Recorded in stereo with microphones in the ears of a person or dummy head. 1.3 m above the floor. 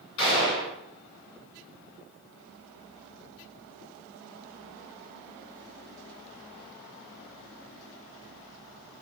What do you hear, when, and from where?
0.2 s a gunshot: 55° left (ahead or behind), 2.0 m